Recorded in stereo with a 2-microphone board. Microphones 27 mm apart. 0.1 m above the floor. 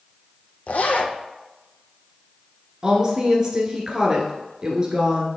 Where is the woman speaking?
30° right (ahead or behind), 1.2 m.